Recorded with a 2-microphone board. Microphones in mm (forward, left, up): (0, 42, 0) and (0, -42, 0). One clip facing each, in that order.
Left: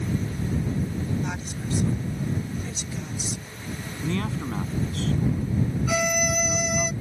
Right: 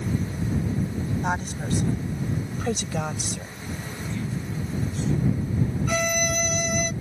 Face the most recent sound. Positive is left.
turn(degrees=5)  # may be behind; listen again after turning